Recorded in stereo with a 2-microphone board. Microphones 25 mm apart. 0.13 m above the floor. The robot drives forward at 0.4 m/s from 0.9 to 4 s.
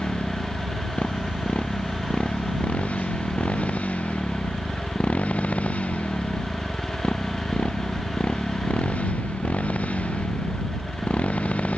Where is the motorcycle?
55° left (ahead or behind); by 11.8 s 65° left (ahead or behind).